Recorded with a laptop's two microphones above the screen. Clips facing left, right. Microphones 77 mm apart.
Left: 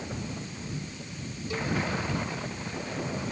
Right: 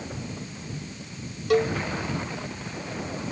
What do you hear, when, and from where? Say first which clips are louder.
1.5 s a cowbell: right 10 dB; 75° right (ahead or behind)